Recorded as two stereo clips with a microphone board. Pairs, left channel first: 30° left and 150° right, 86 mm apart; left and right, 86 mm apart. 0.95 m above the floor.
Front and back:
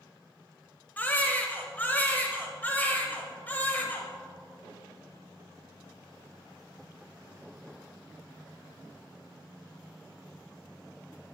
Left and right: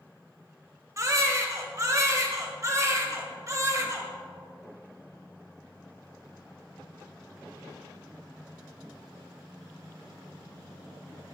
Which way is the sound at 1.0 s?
40° right.